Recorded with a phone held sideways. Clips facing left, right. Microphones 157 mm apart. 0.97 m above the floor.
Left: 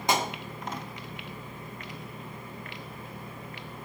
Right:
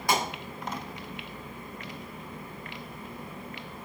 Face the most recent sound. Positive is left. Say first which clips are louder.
# left 1 dB
turn(degrees=20)  # may be behind; listen again after turning